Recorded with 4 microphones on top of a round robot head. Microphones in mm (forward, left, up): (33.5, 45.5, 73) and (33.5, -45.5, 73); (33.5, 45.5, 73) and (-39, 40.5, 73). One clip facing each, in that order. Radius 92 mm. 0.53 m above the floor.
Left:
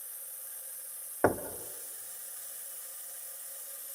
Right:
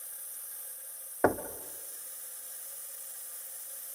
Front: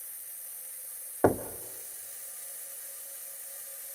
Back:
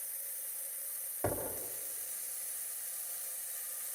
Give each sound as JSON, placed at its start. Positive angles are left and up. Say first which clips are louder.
{"t": 1.2, "sound": "knocking", "louder": "even, front 11 dB", "azimuth_deg": -5, "distance_m": 1.2}